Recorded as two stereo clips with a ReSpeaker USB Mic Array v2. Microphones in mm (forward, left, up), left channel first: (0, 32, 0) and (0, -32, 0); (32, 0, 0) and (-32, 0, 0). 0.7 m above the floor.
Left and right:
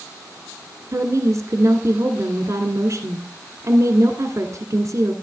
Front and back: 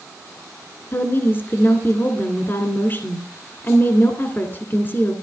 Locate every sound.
0.9 s a woman speaking: 50° right, 1.9 m